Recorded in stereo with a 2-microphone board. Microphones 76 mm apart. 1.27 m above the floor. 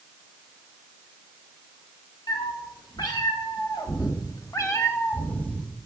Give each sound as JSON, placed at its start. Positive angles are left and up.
{"t": 2.3, "sound": "a cat meowing", "side_deg": 80, "distance_m": 2.5}